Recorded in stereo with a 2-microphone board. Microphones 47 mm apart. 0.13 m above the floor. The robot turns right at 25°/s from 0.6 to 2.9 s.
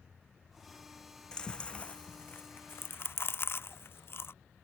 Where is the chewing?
15° left (ahead or behind); by 4.3 s 55° left (ahead or behind).